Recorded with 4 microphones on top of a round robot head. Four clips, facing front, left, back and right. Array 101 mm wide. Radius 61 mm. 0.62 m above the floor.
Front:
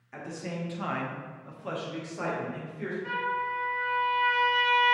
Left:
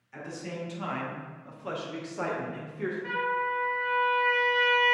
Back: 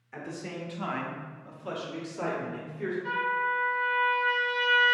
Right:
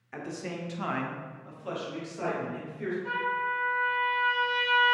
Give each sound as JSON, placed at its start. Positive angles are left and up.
{"t": 0.1, "sound": "a man speaking", "azimuth_deg": -90, "distance_m": 0.9}
{"t": 3.0, "sound": "a trumpet", "azimuth_deg": 65, "distance_m": 1.7}